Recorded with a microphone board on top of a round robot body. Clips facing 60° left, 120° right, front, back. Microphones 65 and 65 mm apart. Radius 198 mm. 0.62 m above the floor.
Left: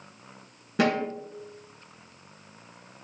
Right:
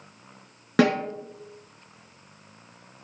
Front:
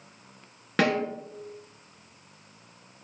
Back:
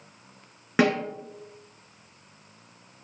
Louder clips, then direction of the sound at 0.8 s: Right 4 dB, back 2 dB; 105° right.